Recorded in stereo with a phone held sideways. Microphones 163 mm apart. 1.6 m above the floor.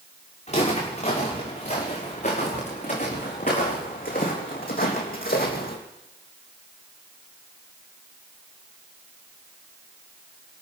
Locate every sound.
0.5 s footsteps: 40° left (ahead or behind), 7 m; by 5.8 s 60° left (ahead or behind), 3 m